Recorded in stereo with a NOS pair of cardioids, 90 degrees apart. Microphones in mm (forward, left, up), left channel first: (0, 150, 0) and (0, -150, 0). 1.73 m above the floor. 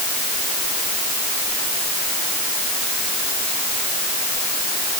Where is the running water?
I don't hear running water.